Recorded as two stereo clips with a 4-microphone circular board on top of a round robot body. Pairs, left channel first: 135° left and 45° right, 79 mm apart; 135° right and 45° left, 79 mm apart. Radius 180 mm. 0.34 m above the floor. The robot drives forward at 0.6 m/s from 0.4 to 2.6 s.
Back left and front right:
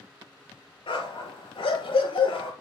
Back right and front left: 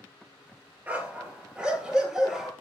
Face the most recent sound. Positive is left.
turn(degrees=130)